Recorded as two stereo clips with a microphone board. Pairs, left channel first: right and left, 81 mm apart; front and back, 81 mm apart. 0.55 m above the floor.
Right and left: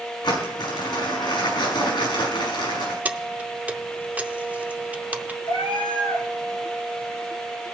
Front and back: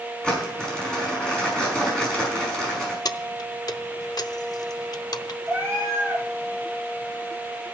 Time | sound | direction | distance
0.2 | crumpling | 80° right | 5 m
3.0 | keys jangling | 25° left | 0.6 m
5.5 | a cat meowing | 85° right | 5 m